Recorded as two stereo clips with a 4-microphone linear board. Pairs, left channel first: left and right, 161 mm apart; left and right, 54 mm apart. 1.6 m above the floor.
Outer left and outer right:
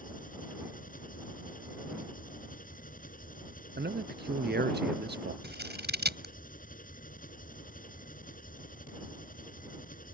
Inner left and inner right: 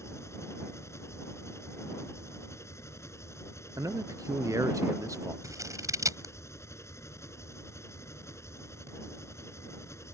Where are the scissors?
75° right (ahead or behind).